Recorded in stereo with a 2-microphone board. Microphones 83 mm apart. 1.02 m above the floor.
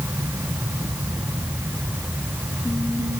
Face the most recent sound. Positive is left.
No sound to turn to.